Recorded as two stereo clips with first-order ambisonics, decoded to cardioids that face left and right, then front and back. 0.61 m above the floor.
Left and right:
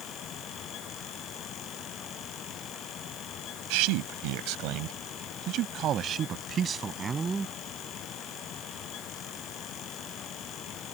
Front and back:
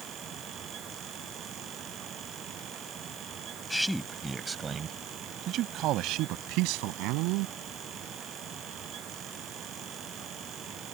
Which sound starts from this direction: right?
A man speaking, at 3.7 s.